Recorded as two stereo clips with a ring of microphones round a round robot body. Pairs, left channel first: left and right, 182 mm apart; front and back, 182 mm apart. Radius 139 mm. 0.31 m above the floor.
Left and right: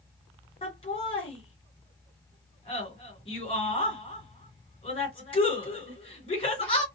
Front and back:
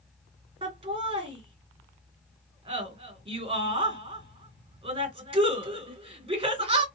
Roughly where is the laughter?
Behind left.